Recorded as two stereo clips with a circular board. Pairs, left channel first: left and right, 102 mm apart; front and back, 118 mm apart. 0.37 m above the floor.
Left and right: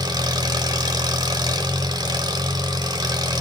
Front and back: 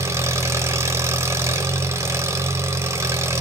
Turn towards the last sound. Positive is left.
turn(degrees=-120)